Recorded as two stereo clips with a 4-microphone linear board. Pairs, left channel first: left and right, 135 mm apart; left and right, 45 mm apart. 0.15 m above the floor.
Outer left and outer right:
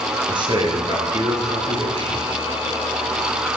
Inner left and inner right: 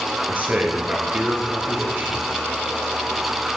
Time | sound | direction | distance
0.3 | a man speaking | 35° right (ahead or behind) | 2.0 m